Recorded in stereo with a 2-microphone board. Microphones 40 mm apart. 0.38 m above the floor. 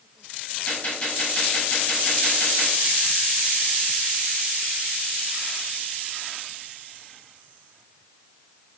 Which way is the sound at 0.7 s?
35° left (ahead or behind).